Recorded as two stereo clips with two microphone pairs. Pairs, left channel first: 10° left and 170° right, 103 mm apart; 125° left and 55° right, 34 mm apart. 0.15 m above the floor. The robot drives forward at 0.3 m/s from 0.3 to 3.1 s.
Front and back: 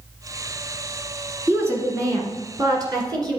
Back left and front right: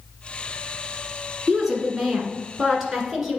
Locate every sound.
1.5 s a woman speaking: 125° right, 1.5 m; by 3.4 s 140° right, 1.7 m